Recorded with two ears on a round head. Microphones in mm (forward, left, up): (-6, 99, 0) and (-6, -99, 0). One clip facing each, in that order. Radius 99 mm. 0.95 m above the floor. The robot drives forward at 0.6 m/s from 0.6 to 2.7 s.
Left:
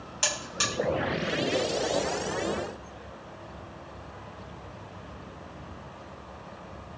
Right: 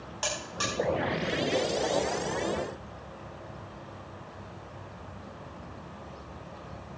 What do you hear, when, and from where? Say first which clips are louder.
0.2 s a buzzer: even; 35° left (ahead or behind), 6 m; by 0.7 s 30° left (ahead or behind), 6 m